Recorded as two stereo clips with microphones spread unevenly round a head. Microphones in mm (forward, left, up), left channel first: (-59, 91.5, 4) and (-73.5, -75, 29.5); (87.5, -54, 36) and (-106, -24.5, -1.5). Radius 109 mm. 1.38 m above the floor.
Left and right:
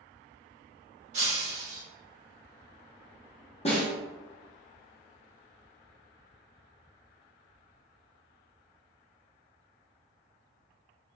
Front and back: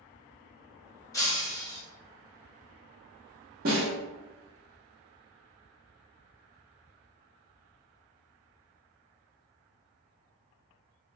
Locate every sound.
1.1 s breaking glass: 70° right, 1.0 m
3.6 s a snare drum: 130° left, 0.8 m